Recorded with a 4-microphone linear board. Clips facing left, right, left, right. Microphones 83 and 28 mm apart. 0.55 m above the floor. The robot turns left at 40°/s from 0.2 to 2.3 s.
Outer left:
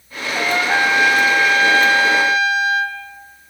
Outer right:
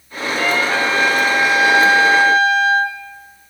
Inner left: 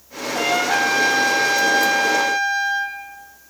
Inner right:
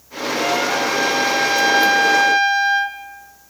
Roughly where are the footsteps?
I don't hear footsteps.